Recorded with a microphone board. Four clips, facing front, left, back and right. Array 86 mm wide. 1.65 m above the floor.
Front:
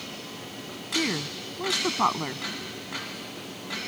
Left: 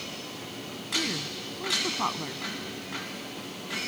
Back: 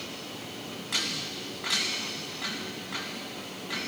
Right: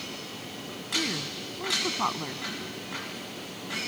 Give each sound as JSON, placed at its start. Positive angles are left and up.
{"t": 0.9, "sound": "a woman speaking", "azimuth_deg": -5}